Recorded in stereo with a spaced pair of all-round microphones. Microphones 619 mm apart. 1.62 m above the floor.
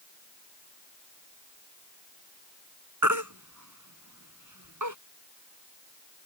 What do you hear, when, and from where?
3.0 s a baby crying: 30° right (ahead or behind)